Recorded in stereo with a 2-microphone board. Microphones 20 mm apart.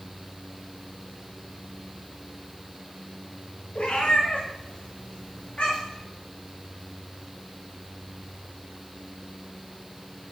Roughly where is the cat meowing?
Left.